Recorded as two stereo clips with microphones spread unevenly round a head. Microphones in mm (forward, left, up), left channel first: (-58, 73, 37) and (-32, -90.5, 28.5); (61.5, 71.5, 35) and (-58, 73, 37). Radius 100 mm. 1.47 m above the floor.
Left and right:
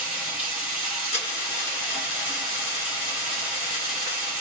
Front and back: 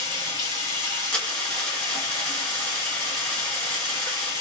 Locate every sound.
0.0 s running water: 10° right, 2.5 m
1.1 s a dropped coin: 75° left, 1.3 m